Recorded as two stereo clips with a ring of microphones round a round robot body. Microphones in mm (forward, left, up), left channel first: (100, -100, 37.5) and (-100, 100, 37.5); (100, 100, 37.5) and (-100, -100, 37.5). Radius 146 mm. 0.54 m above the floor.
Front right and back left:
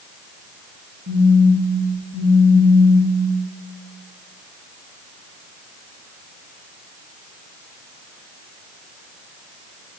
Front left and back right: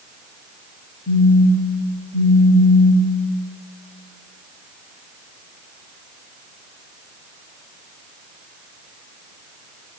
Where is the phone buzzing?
105° left, 8 m.